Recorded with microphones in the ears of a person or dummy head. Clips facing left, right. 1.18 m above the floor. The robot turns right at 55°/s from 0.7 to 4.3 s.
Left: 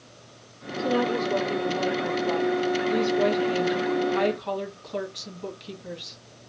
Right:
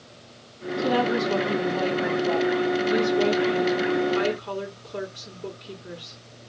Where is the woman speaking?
120° right, 1.5 m; by 6.2 s 75° left, 1.5 m.